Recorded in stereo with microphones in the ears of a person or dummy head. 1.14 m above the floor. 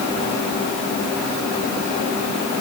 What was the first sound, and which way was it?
Only background noise.